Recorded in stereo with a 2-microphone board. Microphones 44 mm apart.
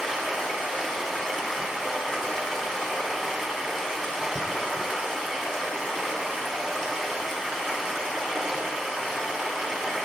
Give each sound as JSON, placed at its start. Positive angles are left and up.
{"t": 0.0, "sound": "running water", "side_deg": 10, "distance_m": 1.6}